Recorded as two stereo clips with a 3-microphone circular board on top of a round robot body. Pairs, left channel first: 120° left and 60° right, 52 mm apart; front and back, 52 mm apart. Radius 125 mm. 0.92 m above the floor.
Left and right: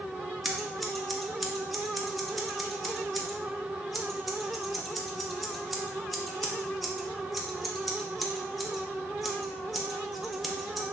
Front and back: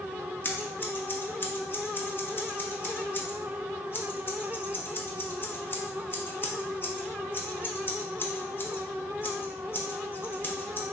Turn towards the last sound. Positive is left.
turn(degrees=30)